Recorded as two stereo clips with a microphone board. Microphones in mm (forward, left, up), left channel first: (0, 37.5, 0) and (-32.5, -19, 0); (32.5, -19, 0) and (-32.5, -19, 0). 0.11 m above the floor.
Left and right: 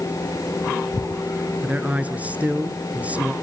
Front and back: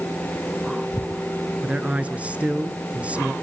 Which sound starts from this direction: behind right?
A man speaking, at 1.6 s.